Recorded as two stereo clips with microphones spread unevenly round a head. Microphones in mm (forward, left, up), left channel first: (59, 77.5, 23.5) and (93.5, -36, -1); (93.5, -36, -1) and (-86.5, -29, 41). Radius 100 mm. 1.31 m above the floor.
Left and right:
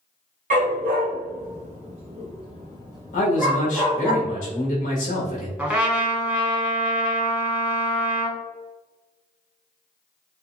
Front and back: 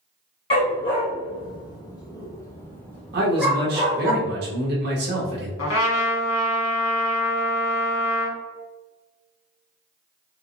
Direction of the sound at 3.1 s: 135° left.